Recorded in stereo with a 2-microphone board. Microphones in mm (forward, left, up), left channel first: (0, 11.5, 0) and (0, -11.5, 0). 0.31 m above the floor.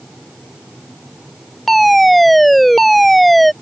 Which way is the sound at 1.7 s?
5° left (ahead or behind).